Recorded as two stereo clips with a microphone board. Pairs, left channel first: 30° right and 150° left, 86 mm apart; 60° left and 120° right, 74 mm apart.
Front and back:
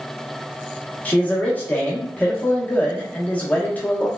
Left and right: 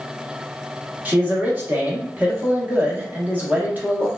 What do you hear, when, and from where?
1.1 s a man speaking: 85° right, 0.9 m